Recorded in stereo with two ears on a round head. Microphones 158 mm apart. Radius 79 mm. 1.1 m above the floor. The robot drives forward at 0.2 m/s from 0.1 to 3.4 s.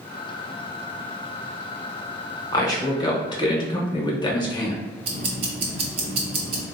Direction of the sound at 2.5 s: 20° left (ahead or behind).